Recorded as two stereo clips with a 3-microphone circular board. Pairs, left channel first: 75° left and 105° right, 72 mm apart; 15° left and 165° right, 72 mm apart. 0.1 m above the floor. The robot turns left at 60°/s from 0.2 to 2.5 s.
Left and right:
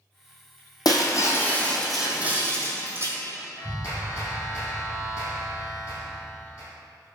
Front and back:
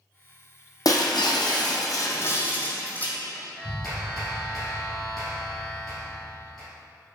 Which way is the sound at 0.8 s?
50° left.